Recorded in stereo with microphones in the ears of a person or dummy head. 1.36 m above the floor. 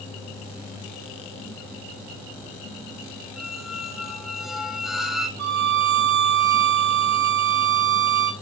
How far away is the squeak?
About 1.0 m.